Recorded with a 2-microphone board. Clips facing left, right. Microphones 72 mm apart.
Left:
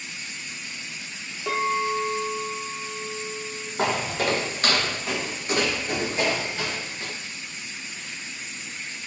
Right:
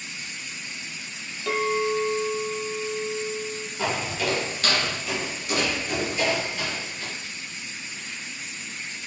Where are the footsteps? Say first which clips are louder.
Left 3 dB; 55° left (ahead or behind), 2 m; by 7.1 s 30° left (ahead or behind), 6 m.